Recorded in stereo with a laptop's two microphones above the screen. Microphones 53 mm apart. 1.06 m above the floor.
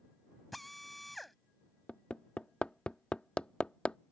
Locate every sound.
0.5 s a drill: centre (ahead or behind)
1.9 s hammering: 20° left (ahead or behind)